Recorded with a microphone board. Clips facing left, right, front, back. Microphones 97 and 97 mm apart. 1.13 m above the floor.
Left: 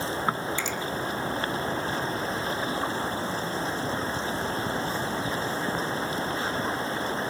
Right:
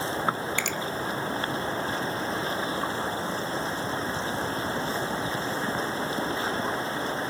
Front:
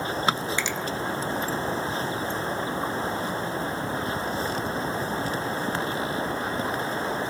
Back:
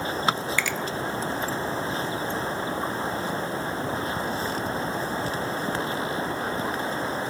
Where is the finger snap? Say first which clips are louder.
Even, back 1 dB; 65° right, 0.7 m.